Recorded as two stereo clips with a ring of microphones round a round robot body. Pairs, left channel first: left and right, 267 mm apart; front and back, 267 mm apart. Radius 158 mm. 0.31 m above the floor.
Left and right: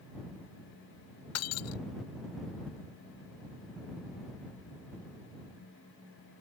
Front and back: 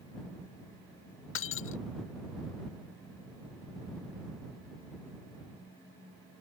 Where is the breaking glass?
50° left.